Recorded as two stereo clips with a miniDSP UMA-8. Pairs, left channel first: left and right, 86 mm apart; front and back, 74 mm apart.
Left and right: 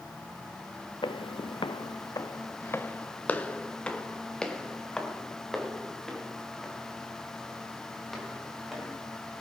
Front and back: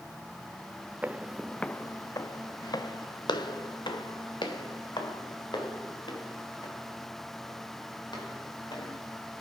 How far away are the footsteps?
About 0.7 m.